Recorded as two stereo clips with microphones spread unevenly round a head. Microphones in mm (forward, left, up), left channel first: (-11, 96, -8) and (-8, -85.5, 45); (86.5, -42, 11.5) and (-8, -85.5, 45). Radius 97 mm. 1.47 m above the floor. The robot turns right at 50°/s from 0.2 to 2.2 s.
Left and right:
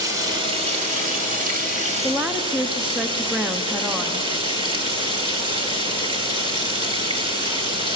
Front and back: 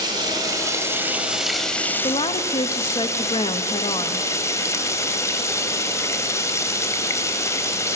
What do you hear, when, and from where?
0.0 s running water: 145° right, 2 m; by 8.0 s 45° right, 2 m
2.0 s a woman speaking: 5° right, 0.9 m; by 4.3 s straight ahead, 0.9 m